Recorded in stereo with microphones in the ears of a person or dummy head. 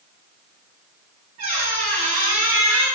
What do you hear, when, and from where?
1.4 s a squeak: 35° right (ahead or behind), 1.0 m